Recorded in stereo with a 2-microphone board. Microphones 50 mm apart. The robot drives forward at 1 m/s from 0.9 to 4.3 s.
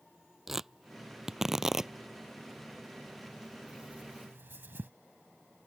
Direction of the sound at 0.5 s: 10° right (ahead or behind).